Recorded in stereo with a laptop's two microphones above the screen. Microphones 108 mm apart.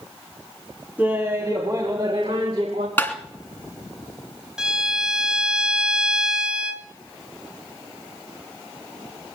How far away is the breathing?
No breathing in this recording.